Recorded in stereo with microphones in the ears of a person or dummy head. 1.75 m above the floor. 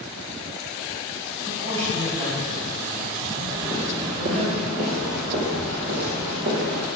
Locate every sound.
1.4 s a woman speaking: 40° right (ahead or behind), 3.5 m
3.5 s footsteps: 20° right (ahead or behind), 1.9 m; by 6.9 s 60° right (ahead or behind), 4.5 m